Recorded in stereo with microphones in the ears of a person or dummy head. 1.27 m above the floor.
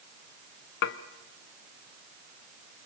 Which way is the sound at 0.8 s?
55° left (ahead or behind).